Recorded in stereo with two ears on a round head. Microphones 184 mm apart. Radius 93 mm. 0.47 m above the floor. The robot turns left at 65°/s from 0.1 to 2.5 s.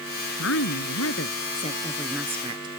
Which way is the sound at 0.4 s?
115° left.